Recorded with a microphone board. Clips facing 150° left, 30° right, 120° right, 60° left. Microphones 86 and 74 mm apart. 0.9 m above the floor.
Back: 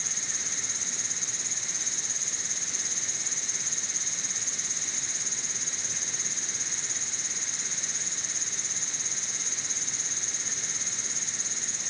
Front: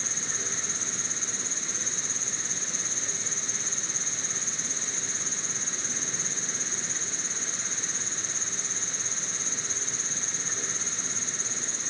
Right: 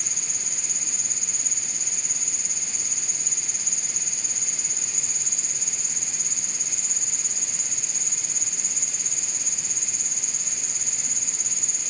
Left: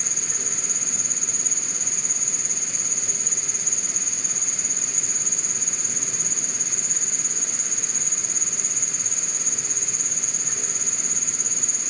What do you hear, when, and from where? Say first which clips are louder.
0.0 s an insect: front 4 dB, left 5 dB; 25° left